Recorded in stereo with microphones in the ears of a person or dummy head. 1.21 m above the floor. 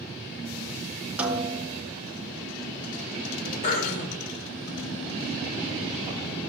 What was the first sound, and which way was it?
A snare drum, 10° right (ahead or behind).